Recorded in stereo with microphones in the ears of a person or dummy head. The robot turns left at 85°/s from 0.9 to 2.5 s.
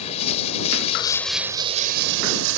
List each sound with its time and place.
0.0 s running water: 35° left; by 2.6 s 100° right